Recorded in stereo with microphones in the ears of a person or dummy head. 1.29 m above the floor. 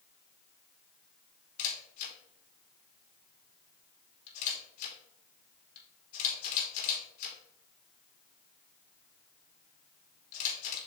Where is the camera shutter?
50° left (ahead or behind), 3.5 m.